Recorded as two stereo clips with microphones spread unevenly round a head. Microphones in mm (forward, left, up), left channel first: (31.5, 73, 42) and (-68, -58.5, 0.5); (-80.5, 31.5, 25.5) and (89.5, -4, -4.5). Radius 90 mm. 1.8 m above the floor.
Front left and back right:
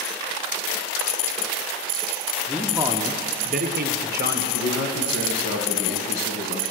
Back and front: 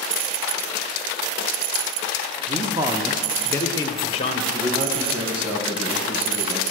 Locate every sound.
2.5 s a man speaking: 5° right, 0.6 m; by 4.4 s 155° right, 1.0 m
4.5 s a man speaking: 50° left, 1.7 m